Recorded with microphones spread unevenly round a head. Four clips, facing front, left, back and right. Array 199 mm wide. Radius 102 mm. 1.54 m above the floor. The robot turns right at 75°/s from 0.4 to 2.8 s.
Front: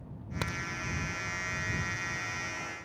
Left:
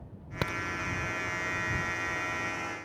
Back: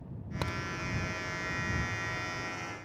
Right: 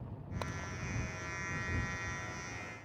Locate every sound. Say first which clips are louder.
0.4 s a crack: left 9 dB, back 1 dB; 90° left; by 0.6 s 105° left